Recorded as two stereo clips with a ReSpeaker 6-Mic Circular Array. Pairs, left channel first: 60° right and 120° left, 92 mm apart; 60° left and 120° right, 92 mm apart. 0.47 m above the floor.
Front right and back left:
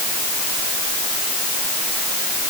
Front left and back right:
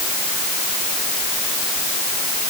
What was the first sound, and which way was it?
Only background noise.